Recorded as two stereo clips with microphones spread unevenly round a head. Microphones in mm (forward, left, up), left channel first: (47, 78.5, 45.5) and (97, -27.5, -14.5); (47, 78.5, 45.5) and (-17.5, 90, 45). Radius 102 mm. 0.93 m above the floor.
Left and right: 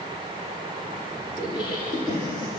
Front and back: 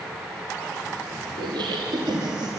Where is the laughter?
175° right, 2 m.